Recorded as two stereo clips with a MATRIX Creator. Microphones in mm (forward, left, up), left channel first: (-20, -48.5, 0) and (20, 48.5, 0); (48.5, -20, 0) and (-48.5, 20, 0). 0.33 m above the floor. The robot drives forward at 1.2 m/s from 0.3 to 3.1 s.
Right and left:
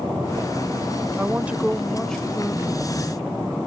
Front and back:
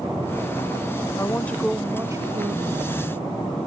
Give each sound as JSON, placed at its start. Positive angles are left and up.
{"t": 1.2, "sound": "a woman speaking", "azimuth_deg": 10}